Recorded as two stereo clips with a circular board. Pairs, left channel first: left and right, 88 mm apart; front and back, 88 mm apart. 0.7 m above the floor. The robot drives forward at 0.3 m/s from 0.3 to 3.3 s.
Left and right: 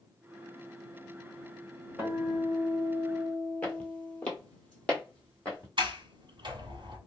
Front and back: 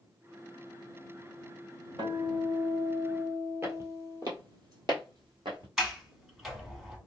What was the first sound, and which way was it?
A guitar, 155° right.